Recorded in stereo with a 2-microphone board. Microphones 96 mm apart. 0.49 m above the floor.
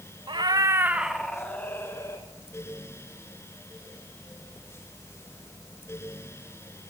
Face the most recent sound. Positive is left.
turn(degrees=30)  # may be behind; listen again after turning